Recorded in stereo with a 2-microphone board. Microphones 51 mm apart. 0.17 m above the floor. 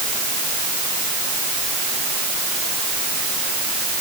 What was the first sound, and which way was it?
Only background noise.